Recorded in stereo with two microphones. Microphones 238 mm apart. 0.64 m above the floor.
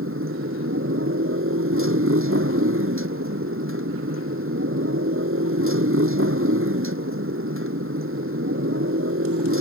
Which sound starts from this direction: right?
A motorcycle, at 0.0 s.